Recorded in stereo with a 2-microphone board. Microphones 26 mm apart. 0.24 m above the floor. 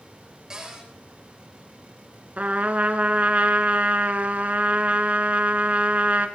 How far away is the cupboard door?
About 4.5 m.